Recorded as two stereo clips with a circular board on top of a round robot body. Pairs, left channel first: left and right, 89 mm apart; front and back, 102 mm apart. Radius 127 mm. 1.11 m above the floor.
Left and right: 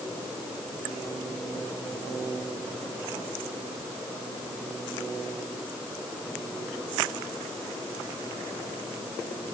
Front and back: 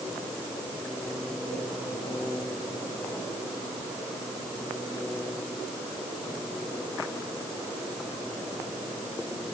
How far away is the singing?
I don't hear singing.